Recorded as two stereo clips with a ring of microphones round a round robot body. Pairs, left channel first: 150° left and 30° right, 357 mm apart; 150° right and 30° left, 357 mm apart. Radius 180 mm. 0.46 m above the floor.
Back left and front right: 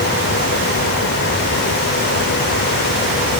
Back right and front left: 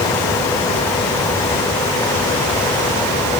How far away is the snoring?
I don't hear snoring.